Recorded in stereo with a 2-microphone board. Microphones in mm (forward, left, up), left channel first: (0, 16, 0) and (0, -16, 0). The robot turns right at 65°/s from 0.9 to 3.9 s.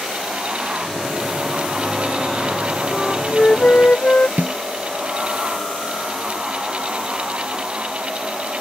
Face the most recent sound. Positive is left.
turn(degrees=-70)  # may be behind; listen again after turning